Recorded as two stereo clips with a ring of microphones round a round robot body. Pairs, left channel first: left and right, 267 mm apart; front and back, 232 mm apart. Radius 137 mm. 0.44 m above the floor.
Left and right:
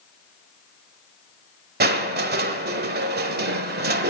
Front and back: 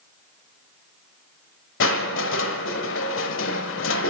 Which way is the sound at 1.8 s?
35° right.